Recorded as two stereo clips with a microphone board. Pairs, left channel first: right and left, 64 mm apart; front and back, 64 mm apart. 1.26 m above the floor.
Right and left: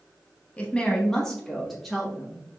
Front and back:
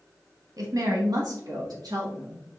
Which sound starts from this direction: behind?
A woman speaking, at 0.6 s.